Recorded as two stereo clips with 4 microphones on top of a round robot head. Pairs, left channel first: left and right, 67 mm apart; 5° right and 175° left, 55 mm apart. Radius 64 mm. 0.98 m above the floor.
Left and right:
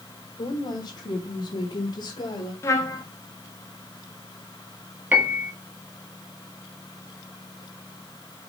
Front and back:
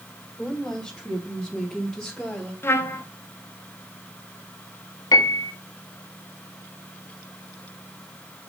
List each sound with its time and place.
0.4 s a woman speaking: 75° left, 4 m
2.6 s a trumpet: 40° left, 1.7 m
5.1 s a piano: 20° right, 1.4 m